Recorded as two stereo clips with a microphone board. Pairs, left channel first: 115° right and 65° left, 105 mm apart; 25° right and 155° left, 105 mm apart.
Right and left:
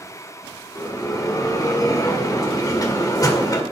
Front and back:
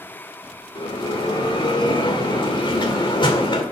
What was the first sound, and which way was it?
A bell, 60° right.